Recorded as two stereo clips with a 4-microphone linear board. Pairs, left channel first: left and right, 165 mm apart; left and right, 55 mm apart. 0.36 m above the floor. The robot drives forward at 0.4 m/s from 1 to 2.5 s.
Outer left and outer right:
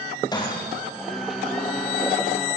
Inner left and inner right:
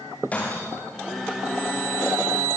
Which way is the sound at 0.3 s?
25° left (ahead or behind).